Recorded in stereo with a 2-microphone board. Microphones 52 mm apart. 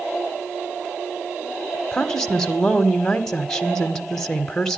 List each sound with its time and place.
1.9 s a woman speaking: 10° left (ahead or behind), 1.1 m